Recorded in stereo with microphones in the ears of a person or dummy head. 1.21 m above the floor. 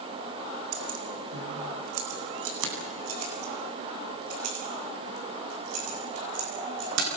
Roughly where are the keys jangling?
Right.